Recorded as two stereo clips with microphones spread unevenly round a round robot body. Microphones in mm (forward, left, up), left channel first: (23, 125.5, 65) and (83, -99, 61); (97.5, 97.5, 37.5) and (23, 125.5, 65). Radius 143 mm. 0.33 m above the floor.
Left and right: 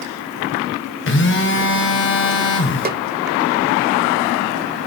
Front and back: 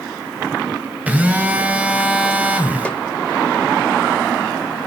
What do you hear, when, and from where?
1.1 s a phone buzzing: 80° left, 1.8 m
2.9 s a snare drum: 60° right, 0.9 m